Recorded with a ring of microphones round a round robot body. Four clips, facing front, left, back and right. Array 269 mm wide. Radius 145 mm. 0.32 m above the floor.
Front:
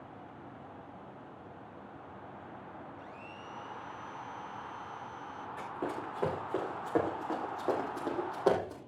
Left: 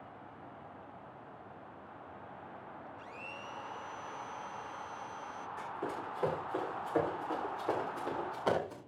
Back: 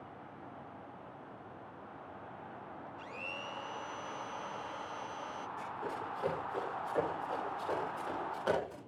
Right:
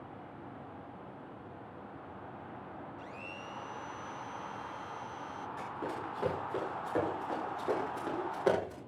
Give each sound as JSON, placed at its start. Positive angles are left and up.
{"t": 3.0, "sound": "a blender", "azimuth_deg": -175, "distance_m": 1.4}
{"t": 5.6, "sound": "running footsteps", "azimuth_deg": -10, "distance_m": 9.5}